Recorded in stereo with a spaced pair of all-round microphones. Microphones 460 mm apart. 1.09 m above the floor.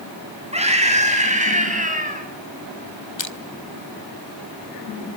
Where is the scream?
15° right (ahead or behind), 8.5 m.